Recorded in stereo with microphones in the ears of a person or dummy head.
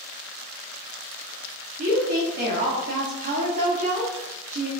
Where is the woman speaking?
45° right (ahead or behind), 1.2 m.